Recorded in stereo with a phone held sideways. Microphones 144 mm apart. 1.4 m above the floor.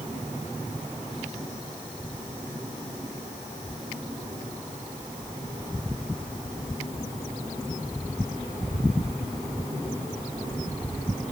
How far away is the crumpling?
No crumpling in this recording.